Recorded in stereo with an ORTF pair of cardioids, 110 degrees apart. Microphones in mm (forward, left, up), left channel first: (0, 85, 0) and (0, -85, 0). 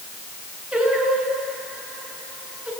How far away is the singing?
About 8.5 m.